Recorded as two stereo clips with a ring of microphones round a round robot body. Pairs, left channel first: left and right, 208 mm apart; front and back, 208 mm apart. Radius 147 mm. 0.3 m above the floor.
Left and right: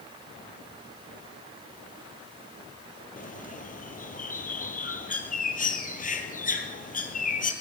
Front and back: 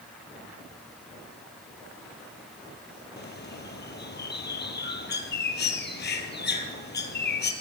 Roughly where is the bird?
Ahead left.